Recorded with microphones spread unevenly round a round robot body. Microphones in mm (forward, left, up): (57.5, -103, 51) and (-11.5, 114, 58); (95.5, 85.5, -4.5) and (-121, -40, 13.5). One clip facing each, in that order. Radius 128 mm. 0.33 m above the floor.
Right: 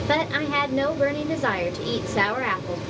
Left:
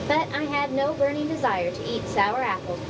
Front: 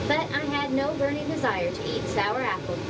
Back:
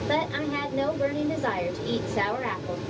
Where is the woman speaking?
20° right, 1.0 m.